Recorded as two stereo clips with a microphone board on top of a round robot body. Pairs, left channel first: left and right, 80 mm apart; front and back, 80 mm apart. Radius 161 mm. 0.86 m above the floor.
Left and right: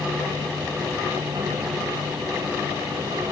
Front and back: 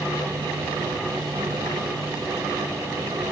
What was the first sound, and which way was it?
Only background noise.